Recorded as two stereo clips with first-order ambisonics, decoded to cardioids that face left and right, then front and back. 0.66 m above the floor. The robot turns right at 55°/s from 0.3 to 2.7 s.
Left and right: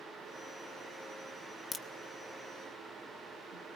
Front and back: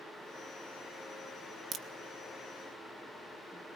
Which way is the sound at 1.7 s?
155° left.